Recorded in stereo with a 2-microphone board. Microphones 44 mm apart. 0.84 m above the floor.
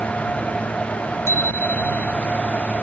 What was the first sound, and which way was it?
A bicycle bell, 85° left.